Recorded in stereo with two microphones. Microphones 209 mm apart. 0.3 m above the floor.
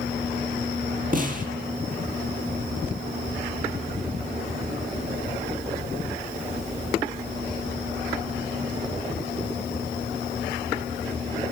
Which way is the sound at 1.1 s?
45° right (ahead or behind).